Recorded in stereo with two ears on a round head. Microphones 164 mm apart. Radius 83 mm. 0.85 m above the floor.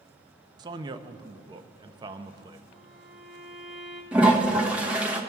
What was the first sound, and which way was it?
A man speaking, 25° right (ahead or behind).